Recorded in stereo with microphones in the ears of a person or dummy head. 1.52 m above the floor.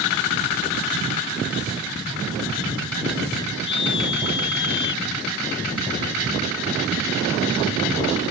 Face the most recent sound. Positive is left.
turn(degrees=55)  # may be behind; listen again after turning